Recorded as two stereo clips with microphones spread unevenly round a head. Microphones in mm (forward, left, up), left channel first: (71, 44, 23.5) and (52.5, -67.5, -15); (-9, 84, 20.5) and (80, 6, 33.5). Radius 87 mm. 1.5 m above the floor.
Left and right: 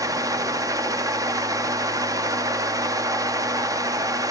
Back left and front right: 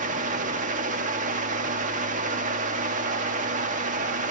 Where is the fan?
35° right, 1.0 m.